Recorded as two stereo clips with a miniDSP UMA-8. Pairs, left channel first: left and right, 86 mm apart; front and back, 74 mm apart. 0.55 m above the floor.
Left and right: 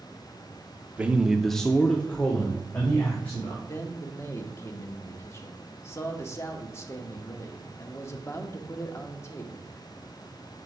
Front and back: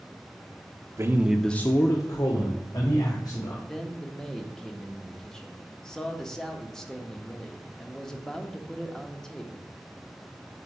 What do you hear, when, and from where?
1.0 s a man speaking: 155° right, 0.8 m; by 3.5 s 20° left, 2.5 m
3.6 s a man speaking: 75° left, 1.0 m